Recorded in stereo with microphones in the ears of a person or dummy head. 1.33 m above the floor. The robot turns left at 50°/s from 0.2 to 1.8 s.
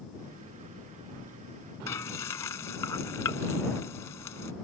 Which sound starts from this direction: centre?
Frying, at 1.9 s.